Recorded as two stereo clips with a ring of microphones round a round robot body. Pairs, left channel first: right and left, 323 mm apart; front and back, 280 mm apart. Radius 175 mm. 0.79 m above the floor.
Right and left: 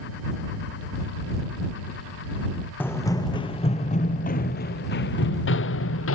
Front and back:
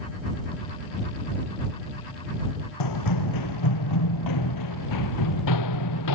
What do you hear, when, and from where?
2.8 s running footsteps: 5° right; by 6.2 s 40° right